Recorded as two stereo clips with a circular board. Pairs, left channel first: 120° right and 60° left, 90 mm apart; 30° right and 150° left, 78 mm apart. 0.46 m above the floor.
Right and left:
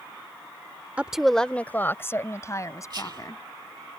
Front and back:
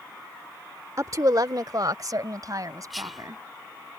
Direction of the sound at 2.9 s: 60° left.